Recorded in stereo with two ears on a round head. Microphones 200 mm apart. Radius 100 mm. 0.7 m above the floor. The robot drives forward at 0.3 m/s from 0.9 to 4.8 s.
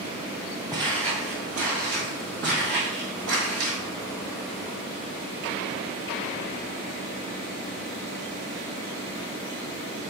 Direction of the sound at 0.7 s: 20° right (ahead or behind).